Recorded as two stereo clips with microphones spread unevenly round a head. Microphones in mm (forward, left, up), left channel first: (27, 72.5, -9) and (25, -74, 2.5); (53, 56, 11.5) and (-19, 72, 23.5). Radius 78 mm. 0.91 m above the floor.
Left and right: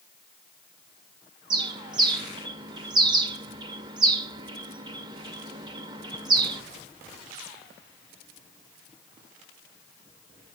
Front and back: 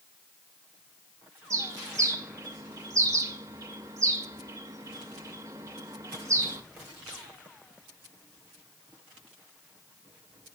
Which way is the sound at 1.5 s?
145° right.